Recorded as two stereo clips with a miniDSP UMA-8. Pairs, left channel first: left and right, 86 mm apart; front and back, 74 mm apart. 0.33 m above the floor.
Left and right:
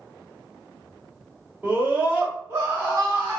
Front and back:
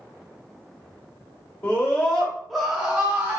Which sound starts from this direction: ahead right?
A scream, at 1.6 s.